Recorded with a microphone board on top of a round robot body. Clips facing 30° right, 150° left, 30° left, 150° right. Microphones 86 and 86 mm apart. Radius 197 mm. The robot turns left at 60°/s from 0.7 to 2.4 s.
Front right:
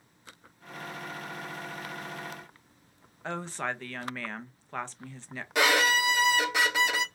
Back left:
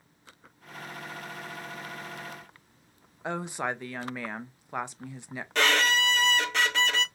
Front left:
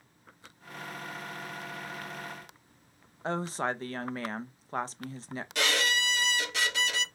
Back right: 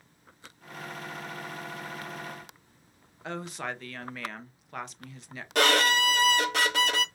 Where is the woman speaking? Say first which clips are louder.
Back left 2 dB, front left 4 dB; 75° left, 0.8 m.